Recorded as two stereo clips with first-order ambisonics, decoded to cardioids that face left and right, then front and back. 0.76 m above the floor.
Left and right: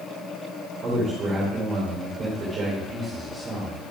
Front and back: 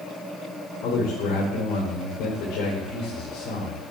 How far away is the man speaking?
About 2.5 m.